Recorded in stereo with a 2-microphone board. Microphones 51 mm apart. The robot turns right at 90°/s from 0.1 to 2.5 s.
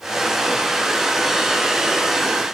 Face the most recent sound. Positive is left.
No sound to turn to.